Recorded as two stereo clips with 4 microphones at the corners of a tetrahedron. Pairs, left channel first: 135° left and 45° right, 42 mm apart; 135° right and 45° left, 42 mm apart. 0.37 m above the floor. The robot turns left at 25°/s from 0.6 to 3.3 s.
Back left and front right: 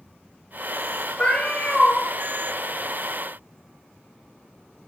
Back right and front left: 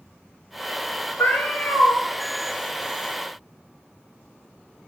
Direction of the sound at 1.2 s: 160° right.